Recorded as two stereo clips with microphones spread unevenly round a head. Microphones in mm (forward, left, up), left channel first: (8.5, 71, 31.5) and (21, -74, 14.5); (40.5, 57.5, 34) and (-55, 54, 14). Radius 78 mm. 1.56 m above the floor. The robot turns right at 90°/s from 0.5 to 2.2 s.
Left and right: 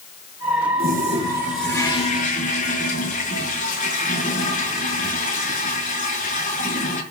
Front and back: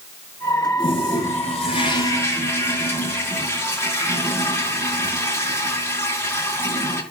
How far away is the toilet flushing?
About 6 m.